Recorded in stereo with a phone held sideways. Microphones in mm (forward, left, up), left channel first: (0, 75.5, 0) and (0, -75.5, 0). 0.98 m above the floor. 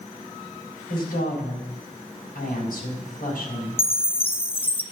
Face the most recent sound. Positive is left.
turn(degrees=40)  # may be behind; listen again after turning